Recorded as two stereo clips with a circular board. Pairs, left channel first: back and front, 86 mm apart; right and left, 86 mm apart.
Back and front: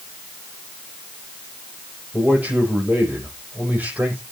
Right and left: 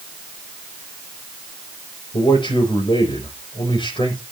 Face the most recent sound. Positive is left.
turn(degrees=-75)